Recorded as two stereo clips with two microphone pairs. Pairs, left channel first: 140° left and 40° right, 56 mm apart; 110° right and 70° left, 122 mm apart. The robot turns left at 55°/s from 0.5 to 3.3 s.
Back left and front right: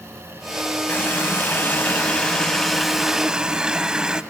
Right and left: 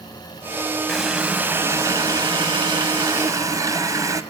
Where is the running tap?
160° left, 0.8 m; by 4.2 s 30° left, 0.8 m.